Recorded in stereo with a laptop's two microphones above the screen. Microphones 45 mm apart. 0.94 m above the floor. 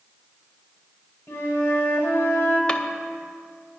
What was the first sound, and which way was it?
A flute, 70° left (ahead or behind).